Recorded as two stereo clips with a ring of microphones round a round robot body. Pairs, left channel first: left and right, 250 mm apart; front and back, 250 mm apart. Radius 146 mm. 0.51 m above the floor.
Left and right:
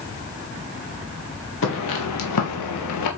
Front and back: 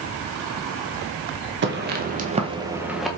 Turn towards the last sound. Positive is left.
turn(degrees=90)